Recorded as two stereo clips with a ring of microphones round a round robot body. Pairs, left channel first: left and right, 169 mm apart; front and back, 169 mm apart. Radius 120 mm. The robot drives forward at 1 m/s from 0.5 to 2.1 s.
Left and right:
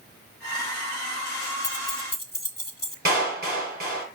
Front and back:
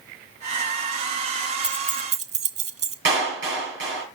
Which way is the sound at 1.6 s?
100° left.